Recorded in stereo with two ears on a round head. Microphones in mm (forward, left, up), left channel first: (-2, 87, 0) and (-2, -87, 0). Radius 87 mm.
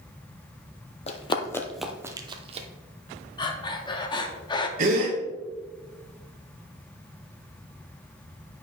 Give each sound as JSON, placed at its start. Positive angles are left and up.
{"t": 1.1, "sound": "running footsteps", "side_deg": 35, "distance_m": 0.8}
{"t": 3.4, "sound": "breathing", "side_deg": 25, "distance_m": 0.7}
{"t": 4.8, "sound": "a gasp", "side_deg": -45, "distance_m": 1.8}